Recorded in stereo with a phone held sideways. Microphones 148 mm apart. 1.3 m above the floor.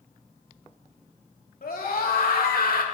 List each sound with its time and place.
1.6 s a scream: 80° left, 3.5 m; by 2.9 s 85° left, 2 m